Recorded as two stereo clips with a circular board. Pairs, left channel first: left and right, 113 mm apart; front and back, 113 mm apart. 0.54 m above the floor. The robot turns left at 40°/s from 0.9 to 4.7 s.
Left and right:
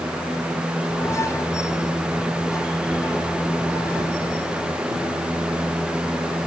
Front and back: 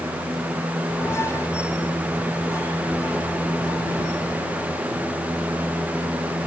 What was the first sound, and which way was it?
Only background noise.